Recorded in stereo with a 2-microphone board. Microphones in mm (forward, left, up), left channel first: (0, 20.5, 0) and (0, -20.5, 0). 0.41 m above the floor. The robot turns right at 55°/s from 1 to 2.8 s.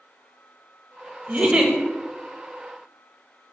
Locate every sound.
1.3 s a giggle: 40° right (ahead or behind), 0.5 m; by 1.7 s 15° right (ahead or behind), 0.5 m